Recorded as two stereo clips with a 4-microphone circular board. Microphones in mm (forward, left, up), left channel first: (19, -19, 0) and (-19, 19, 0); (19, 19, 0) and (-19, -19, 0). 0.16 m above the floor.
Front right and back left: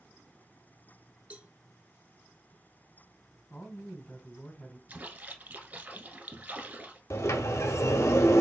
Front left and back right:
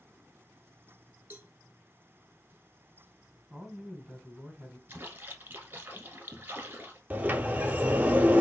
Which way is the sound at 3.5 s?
60° right.